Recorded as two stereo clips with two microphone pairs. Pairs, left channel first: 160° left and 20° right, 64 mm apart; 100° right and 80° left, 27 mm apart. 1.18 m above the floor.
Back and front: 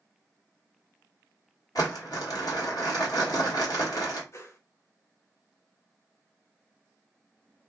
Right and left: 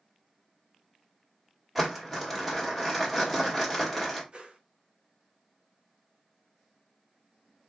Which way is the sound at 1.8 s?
170° left.